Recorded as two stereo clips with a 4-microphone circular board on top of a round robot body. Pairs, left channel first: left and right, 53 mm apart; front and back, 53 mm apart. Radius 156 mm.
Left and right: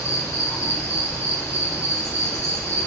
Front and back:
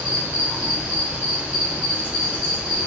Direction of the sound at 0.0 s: 110° left.